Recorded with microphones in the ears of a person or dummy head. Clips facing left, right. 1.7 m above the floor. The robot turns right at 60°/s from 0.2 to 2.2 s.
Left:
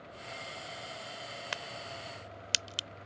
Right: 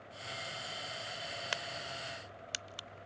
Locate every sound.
1.5 s a crack: centre (ahead or behind); by 2.9 s 40° left (ahead or behind)